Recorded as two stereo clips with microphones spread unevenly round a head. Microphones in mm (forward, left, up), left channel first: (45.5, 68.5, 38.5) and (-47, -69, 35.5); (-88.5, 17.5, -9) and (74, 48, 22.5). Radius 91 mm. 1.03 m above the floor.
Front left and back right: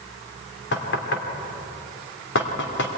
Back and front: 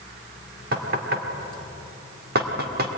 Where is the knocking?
40° left, 2.5 m.